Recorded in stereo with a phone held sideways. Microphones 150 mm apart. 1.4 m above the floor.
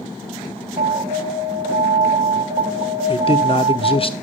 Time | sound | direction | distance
0.8 | an alarm | 65° right (ahead or behind) | 2 m
3.1 | a man speaking | 40° left (ahead or behind) | 0.8 m